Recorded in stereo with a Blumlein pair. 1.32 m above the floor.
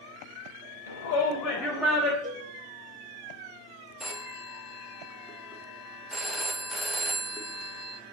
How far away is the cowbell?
About 2 m.